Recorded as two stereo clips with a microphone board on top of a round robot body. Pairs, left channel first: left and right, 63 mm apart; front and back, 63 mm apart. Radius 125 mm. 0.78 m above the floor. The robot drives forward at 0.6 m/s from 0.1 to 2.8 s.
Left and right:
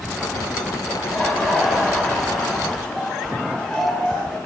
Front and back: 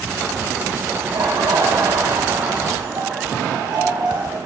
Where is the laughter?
175° right, 7.5 m.